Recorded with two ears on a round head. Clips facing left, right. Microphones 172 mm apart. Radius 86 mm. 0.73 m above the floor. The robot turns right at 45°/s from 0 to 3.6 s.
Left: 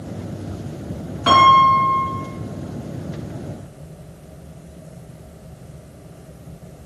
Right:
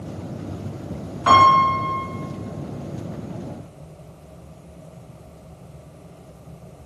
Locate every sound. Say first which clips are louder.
1.3 s a piano: left 2 dB; 20° left, 3 m; by 2.0 s 55° left, 3 m